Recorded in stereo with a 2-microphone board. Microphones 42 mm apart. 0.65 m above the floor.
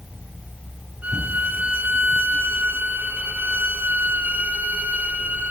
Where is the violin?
40° right (ahead or behind), 1.5 m.